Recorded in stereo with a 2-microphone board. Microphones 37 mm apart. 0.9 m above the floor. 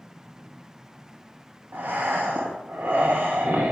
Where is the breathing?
60° right (ahead or behind), 0.7 m.